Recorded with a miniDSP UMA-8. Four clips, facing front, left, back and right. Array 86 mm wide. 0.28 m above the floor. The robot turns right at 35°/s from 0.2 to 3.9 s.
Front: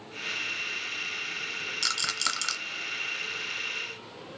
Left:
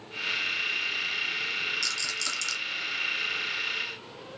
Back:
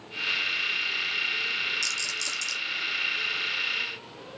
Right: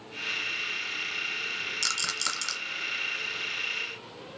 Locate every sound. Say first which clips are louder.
1.8 s a rattle: right 2 dB, front 4 dB; 45° right, 0.9 m; by 2.6 s 20° right, 0.9 m